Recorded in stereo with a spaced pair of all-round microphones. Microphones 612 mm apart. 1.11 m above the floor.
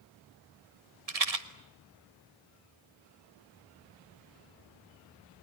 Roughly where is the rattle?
Right.